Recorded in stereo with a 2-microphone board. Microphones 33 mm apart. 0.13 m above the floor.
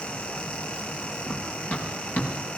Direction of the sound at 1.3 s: 50° left (ahead or behind).